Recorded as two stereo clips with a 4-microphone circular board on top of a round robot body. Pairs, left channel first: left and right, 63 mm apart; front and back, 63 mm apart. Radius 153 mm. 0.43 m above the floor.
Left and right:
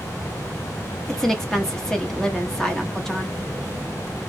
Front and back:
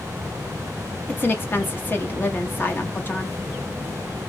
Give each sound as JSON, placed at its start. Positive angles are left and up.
{"t": 1.1, "sound": "a woman speaking", "azimuth_deg": 15, "distance_m": 1.4}